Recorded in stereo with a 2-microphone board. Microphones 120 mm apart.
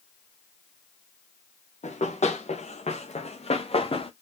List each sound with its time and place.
1.8 s running footsteps: 80° left, 2.5 m; by 4.1 s 50° left (ahead or behind), 1.6 m